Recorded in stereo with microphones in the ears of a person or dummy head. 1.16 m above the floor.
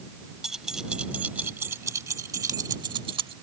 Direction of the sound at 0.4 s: 5° right (ahead or behind).